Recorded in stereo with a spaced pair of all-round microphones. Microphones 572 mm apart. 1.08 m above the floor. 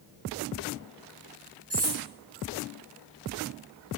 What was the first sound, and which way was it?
Cutlery clinking, 20° right (ahead or behind).